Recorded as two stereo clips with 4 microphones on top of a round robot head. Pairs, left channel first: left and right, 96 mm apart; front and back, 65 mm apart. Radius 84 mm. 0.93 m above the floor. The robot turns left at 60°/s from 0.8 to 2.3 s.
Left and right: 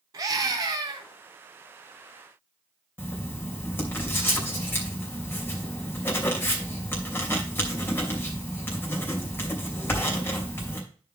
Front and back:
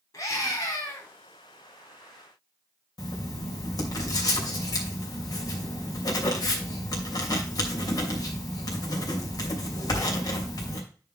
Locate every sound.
0.1 s a scream: 45° right, 3.5 m; by 1.1 s 60° right, 3.5 m
3.0 s writing: 20° left, 3 m